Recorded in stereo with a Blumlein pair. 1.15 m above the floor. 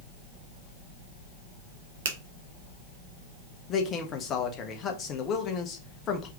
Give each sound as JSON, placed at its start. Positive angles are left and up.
{"t": 2.0, "sound": "a finger snap", "azimuth_deg": -60, "distance_m": 0.9}
{"t": 3.7, "sound": "a man speaking", "azimuth_deg": 25, "distance_m": 1.2}